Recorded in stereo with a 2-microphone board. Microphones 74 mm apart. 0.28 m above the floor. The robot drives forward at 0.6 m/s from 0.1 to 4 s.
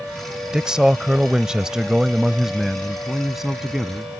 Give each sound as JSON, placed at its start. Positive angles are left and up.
{"t": 0.5, "sound": "a man speaking", "side_deg": -10}